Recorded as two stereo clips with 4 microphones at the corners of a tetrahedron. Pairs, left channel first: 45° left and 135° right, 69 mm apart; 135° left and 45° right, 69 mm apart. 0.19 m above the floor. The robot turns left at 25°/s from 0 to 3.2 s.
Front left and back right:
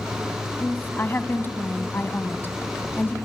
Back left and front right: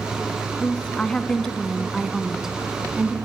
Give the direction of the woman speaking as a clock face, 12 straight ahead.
9 o'clock.